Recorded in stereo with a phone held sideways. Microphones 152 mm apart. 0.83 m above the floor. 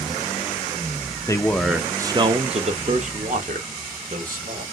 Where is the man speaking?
20° left (ahead or behind), 0.7 m; by 4.6 s 70° right (ahead or behind), 2 m.